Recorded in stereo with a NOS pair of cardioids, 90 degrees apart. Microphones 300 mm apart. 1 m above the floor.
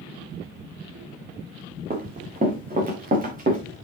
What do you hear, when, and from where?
1.9 s running footsteps: 30° right, 5 m; by 3.6 s 25° right, 6 m